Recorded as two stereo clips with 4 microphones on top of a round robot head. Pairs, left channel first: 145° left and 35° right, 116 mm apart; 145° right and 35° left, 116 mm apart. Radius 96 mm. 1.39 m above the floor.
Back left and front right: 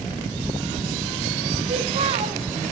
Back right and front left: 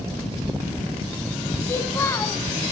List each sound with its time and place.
1.7 s a child speaking: 75° right, 1.8 m